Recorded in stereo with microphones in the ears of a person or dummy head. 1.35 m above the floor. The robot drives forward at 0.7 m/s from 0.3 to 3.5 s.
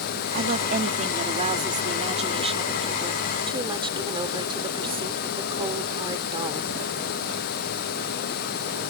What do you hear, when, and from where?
0.3 s a woman speaking: 40° right (ahead or behind); by 6.8 s 25° right (ahead or behind)